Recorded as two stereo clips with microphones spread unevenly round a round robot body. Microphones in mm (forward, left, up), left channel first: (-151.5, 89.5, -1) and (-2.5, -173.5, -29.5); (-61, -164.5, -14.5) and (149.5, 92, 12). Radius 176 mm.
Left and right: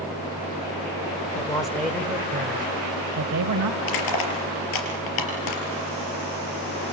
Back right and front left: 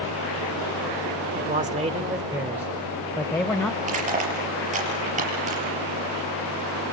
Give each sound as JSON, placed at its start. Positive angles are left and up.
{"t": 1.4, "sound": "a man speaking", "azimuth_deg": 75, "distance_m": 1.0}
{"t": 3.8, "sound": "crushing", "azimuth_deg": 120, "distance_m": 5.5}